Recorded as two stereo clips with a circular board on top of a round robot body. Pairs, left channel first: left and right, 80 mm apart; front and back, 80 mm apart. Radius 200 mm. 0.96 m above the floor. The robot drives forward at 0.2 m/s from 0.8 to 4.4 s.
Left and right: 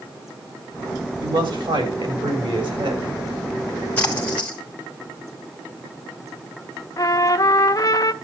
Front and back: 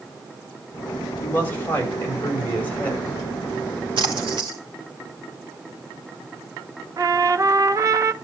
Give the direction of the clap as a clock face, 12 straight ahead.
I don't hear a clap.